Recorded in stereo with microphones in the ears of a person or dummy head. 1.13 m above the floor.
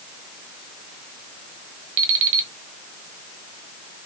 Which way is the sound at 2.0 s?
65° right (ahead or behind).